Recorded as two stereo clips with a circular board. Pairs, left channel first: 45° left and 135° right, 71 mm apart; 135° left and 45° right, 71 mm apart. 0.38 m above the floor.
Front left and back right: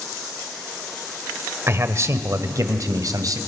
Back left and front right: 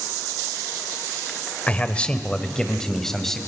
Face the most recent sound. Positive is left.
turn(degrees=-140)